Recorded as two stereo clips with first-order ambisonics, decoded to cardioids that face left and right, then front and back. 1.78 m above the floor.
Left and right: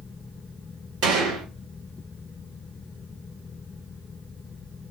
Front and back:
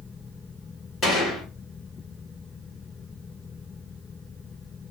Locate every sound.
1.0 s a gunshot: 70° right, 2.5 m